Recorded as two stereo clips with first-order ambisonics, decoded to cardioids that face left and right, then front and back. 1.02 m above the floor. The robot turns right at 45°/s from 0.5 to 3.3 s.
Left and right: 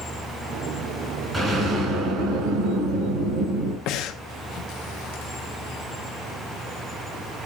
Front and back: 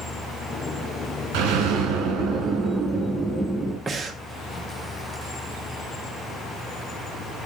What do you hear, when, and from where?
1.3 s an explosion: 165° right, 3.5 m; by 3.8 s 75° right, 3.5 m
3.9 s breathing: 105° left, 0.8 m